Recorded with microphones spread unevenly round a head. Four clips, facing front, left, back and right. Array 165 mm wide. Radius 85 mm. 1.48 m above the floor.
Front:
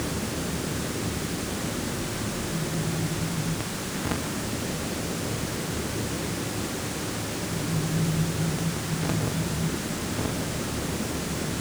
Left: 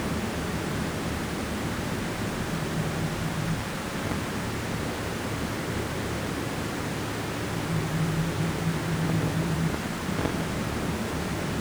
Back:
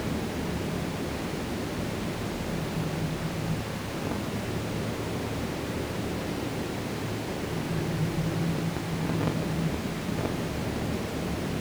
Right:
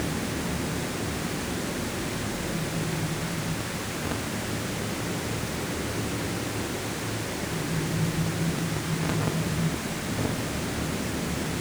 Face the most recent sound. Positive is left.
No sound to turn to.